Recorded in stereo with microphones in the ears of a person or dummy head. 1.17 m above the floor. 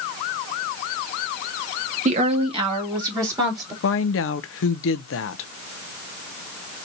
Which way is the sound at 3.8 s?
65° left (ahead or behind).